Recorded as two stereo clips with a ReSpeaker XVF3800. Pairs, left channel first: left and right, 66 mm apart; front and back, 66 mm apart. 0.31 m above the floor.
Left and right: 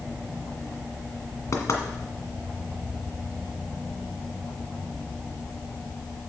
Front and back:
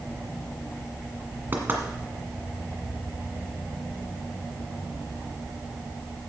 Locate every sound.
1.5 s knocking: 125° left, 1.7 m